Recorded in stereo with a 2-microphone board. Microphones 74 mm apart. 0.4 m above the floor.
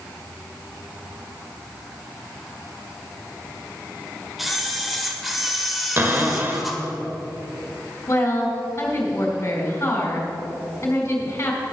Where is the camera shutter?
5° right (ahead or behind), 1.2 m.